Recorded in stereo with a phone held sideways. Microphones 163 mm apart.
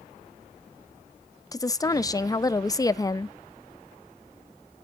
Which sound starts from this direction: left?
A woman speaking, at 1.5 s.